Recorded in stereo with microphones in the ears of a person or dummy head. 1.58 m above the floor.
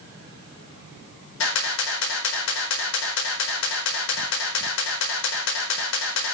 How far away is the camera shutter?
About 5 m.